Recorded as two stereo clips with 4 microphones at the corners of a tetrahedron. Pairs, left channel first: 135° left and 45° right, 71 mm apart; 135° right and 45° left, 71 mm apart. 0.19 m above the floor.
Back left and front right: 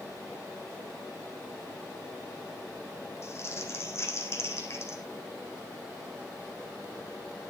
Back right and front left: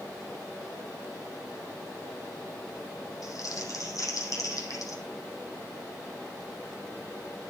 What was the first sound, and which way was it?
Crumpling, 175° right.